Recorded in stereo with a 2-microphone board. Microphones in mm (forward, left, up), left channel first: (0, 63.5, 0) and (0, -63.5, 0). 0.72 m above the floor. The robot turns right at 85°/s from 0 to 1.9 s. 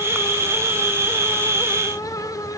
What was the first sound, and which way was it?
Only background noise.